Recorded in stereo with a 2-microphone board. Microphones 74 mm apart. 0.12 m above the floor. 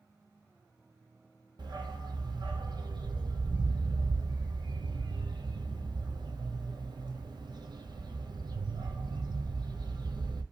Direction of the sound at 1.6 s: 75° right (ahead or behind).